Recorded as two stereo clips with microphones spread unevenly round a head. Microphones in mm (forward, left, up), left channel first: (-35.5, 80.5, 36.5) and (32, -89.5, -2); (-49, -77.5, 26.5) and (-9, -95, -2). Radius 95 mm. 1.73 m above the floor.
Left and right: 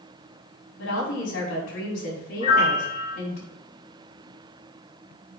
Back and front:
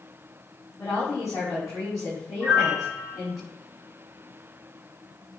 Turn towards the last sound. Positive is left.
turn(degrees=70)